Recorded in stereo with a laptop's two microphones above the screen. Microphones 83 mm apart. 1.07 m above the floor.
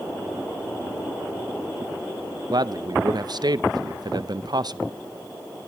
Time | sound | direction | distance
2.5 | a man speaking | 55° right (ahead or behind) | 0.6 m